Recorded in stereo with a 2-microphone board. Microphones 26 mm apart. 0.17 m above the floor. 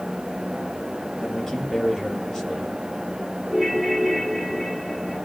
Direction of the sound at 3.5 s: 5° right (ahead or behind).